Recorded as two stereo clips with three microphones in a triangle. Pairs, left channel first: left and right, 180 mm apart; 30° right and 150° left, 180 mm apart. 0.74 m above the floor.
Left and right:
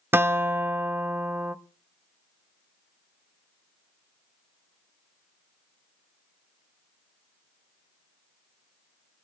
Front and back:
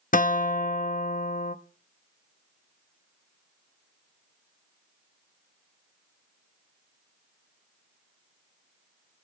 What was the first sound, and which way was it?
A guitar, 15° right.